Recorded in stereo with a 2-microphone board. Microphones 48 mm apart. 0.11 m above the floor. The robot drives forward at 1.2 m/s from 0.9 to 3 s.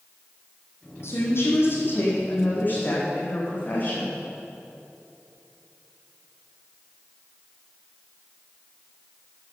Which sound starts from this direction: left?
A woman speaking, at 1.0 s.